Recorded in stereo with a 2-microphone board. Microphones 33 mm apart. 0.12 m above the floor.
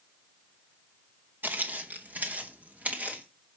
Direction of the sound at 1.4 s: 65° right (ahead or behind).